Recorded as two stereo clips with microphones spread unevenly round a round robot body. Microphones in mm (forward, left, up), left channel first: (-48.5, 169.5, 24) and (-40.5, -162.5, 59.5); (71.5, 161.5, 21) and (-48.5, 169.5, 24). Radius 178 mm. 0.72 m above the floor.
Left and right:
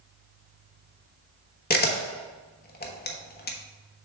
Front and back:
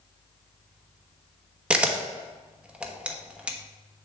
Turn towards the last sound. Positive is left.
turn(degrees=100)